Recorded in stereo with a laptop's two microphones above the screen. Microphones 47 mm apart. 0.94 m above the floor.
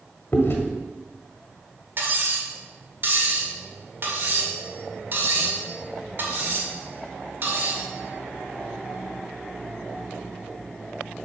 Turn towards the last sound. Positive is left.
turn(degrees=-45)  # may be behind; listen again after turning